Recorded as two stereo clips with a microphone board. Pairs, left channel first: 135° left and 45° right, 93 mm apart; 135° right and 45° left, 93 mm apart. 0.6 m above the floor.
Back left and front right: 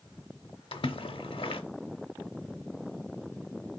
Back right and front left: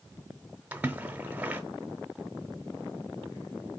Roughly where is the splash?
Behind left.